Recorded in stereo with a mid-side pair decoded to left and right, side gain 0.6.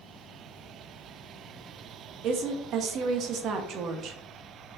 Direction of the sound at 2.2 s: 55° right.